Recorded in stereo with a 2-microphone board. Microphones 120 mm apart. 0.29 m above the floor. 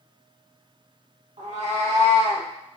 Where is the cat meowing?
70° right (ahead or behind), 0.8 m; by 2.5 s 45° right (ahead or behind), 0.6 m.